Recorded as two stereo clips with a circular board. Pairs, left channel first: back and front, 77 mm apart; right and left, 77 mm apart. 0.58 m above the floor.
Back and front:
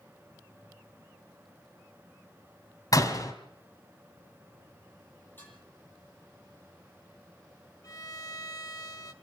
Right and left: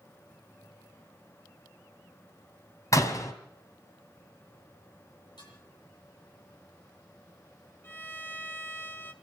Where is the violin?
150° right, 1.3 m.